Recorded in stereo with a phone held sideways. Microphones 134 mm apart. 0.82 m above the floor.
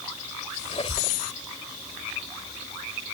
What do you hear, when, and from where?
0.7 s a squeak: 45° left (ahead or behind)